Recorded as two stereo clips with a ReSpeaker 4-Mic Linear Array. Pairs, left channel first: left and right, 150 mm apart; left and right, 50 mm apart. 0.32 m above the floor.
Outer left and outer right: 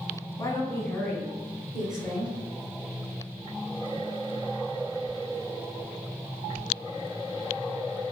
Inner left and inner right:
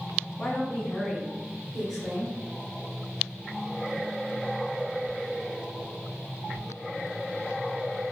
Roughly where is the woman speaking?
Left.